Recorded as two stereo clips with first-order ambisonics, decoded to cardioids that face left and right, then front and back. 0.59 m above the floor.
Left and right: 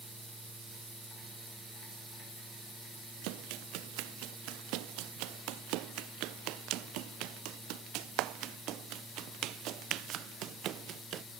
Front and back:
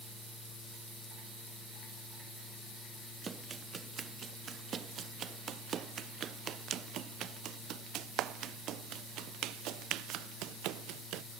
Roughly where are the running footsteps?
Right.